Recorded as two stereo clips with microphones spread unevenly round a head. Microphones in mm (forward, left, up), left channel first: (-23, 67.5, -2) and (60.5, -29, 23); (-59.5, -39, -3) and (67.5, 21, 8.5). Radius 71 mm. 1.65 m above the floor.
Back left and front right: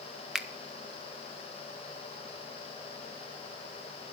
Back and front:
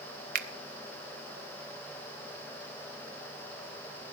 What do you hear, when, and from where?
0.3 s a finger snap: 30° left, 0.7 m